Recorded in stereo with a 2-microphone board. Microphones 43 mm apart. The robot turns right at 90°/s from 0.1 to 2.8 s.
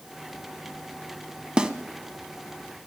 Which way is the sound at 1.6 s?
20° right (ahead or behind).